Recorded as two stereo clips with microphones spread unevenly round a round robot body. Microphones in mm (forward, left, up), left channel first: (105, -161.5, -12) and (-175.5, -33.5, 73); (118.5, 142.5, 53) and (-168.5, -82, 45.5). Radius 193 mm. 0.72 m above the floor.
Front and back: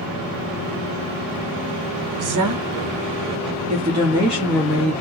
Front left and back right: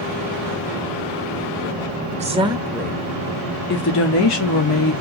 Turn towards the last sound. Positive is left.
turn(degrees=35)